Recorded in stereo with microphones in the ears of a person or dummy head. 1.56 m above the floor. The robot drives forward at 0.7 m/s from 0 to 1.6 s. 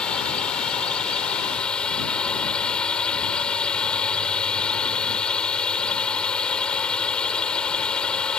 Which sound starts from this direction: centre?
A drone, at 0.0 s.